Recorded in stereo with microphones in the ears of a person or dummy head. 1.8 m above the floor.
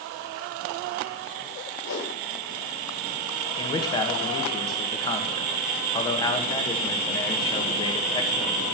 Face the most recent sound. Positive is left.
turn(degrees=25)  # may be behind; listen again after turning